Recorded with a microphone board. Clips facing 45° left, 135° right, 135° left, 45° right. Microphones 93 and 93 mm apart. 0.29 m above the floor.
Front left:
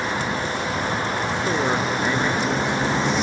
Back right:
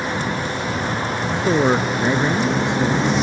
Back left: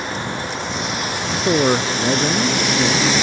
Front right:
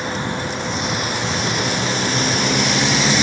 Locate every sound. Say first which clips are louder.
1.3 s a man speaking: back right 7 dB, back left 10 dB; 155° left